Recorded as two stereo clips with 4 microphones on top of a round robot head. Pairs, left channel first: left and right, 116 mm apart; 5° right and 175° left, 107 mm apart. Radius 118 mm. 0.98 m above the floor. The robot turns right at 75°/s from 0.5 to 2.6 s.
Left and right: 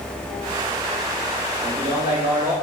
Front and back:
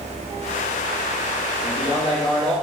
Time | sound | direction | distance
1.6 | a man speaking | 10° left | 1.0 m